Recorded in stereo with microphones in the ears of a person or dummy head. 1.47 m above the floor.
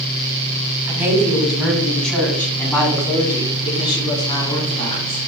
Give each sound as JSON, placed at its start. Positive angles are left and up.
{"t": 0.9, "sound": "a woman speaking", "side_deg": -15, "distance_m": 2.5}